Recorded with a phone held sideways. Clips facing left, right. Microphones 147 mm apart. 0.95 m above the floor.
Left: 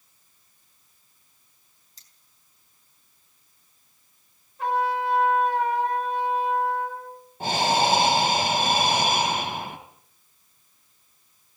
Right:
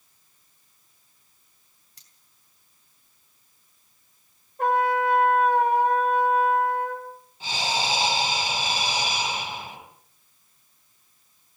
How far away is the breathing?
About 4 m.